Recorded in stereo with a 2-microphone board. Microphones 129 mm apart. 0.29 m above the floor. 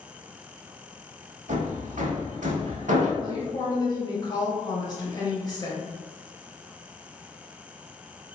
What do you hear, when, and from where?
1.5 s hammering: 70° right (ahead or behind), 0.6 m
3.2 s a woman speaking: 30° left (ahead or behind), 1.0 m